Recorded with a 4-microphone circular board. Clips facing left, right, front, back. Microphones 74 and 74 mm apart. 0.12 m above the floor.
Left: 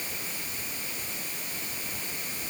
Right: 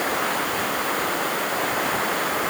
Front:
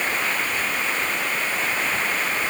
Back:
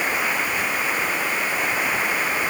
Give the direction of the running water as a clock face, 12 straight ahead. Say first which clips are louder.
Right 17 dB, back 1 dB; 3 o'clock.